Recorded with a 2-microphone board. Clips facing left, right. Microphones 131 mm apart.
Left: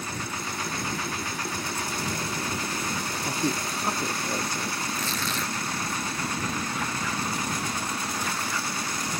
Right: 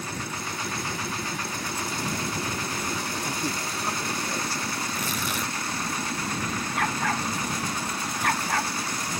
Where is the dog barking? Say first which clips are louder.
Right 3 dB; 65° right (ahead or behind).